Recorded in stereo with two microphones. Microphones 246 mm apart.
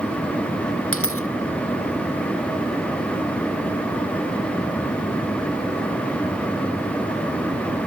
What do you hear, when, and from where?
0.9 s a dropped coin: 60° left (ahead or behind)